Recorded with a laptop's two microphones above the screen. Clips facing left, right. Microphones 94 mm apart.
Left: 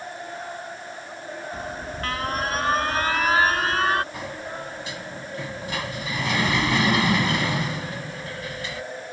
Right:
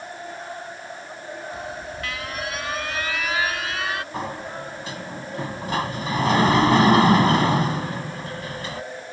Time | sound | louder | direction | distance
1.5 | an alarm | even | 40° left (ahead or behind) | ?
4.1 | a sliding door | right 3 dB | 40° right (ahead or behind) | ?